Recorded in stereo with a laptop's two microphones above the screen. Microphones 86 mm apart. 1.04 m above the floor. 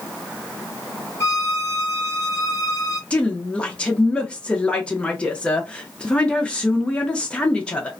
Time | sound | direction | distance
1.2 | a violin | 30° left (ahead or behind) | 0.9 m
3.1 | a woman speaking | 10° left (ahead or behind) | 0.6 m